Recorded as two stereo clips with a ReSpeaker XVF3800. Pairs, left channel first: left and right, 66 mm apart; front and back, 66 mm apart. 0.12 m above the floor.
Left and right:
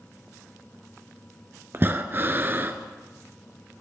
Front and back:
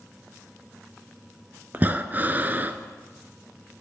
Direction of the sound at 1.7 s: 130° right.